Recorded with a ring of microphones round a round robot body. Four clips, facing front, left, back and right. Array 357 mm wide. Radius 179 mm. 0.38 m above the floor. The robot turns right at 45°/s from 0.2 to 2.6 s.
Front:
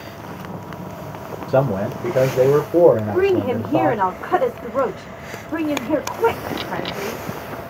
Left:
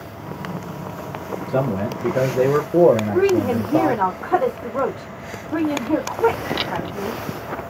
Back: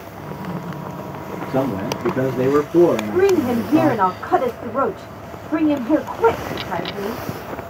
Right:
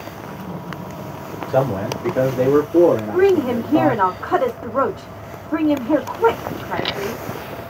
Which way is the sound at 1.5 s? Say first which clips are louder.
Right 3 dB, front 3 dB; 5° right.